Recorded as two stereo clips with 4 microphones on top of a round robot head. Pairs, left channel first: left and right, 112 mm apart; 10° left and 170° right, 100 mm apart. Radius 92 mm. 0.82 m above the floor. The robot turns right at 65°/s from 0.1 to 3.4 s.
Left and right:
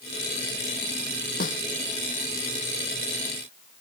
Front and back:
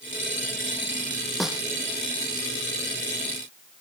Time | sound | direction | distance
1.4 | a snare drum | 100° left | ?